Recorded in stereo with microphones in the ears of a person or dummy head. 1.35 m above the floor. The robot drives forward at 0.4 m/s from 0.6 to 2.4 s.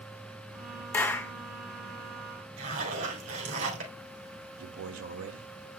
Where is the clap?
10° left (ahead or behind), 0.8 m; by 1.3 s 15° left (ahead or behind), 0.7 m.